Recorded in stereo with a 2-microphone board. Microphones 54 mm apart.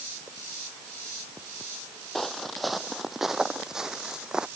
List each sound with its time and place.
2.1 s footsteps: 5° left (ahead or behind); by 4.5 s 15° right (ahead or behind)